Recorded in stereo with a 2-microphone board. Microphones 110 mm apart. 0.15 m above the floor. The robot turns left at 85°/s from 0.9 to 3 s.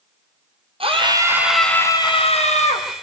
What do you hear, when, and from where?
0.8 s a scream: 120° right, 5 m; by 2.9 s 70° left, 5 m